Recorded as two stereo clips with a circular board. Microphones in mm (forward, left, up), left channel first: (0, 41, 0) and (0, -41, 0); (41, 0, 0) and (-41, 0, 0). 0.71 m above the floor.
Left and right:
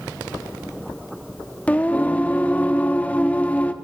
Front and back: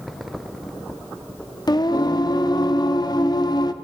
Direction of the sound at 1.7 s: 20° left.